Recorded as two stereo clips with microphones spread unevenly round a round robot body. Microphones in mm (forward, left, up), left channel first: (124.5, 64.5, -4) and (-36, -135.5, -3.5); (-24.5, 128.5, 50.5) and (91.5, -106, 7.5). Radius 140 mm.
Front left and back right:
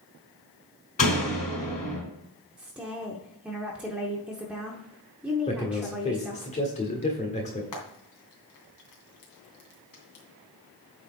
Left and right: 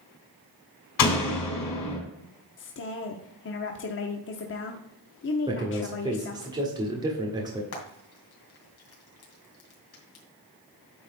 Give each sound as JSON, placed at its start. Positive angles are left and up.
{"t": 1.0, "sound": "a door slam", "azimuth_deg": 115, "distance_m": 3.5}
{"t": 2.6, "sound": "a woman speaking", "azimuth_deg": 150, "distance_m": 0.8}
{"t": 5.5, "sound": "a man speaking", "azimuth_deg": -5, "distance_m": 1.5}
{"t": 7.7, "sound": "frying", "azimuth_deg": 80, "distance_m": 2.5}